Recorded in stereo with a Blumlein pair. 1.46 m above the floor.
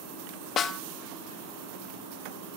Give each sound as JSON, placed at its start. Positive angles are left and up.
{"t": 0.6, "sound": "a snare drum", "azimuth_deg": 30, "distance_m": 0.7}